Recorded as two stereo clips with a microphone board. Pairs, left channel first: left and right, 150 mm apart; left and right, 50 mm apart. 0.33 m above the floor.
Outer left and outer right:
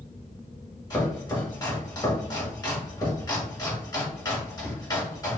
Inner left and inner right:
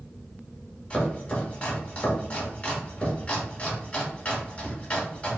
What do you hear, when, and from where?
0.9 s chopping: 25° left (ahead or behind), 1.4 m